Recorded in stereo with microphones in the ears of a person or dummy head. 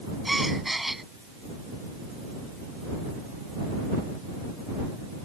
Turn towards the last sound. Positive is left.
turn(degrees=0)  # may be behind; listen again after turning